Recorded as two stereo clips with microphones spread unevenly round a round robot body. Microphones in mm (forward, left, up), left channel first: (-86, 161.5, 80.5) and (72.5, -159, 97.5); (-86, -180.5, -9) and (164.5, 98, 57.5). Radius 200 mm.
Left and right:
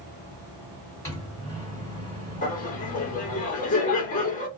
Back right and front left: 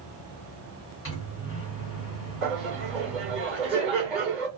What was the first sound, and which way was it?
A microwave, 165° right.